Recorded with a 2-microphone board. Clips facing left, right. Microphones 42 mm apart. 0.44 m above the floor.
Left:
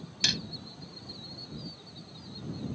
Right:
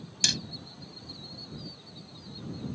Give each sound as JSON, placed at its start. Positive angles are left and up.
{"t": 0.2, "sound": "hammering", "side_deg": 10}